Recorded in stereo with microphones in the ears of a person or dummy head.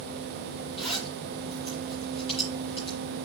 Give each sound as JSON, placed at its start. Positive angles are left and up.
{"t": 0.8, "sound": "a zipper", "side_deg": 25, "distance_m": 5.5}